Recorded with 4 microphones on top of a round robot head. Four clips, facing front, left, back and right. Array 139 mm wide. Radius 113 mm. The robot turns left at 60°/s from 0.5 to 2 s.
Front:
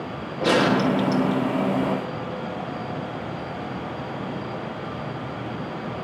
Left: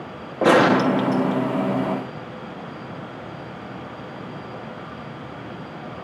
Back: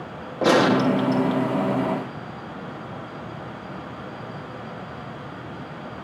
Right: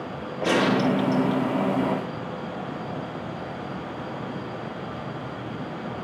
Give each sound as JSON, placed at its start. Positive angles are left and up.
{"t": 0.4, "sound": "a gunshot", "azimuth_deg": 110, "distance_m": 1.2}